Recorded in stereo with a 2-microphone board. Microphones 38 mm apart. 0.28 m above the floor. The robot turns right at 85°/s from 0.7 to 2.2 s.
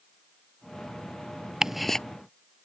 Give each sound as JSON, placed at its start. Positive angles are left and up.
{"t": 1.6, "sound": "ticking", "side_deg": -20}